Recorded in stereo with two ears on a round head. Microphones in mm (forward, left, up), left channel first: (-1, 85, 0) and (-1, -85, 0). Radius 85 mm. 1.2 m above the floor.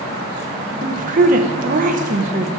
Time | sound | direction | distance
0.8 | a woman speaking | 45° right (ahead or behind) | 1.0 m